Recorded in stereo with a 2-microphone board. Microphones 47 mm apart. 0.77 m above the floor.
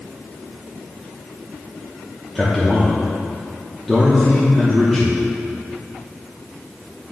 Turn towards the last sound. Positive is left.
turn(degrees=-5)  # may be behind; listen again after turning